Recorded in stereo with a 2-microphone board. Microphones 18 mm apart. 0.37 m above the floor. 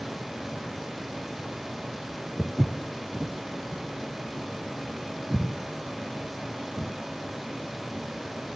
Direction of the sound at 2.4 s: 60° right (ahead or behind).